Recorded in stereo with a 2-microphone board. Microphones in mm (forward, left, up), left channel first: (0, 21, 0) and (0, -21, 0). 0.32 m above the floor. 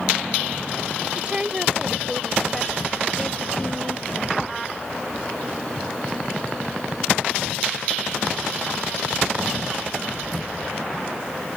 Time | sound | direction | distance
1.1 | a woman speaking | 30° right (ahead or behind) | ?